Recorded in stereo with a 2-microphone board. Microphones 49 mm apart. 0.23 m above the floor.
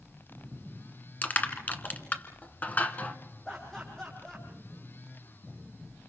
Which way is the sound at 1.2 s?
35° left (ahead or behind).